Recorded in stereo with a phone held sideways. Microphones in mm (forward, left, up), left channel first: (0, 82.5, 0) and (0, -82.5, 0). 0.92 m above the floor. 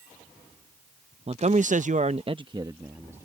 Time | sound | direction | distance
1.3 | a man speaking | 40° right (ahead or behind) | ?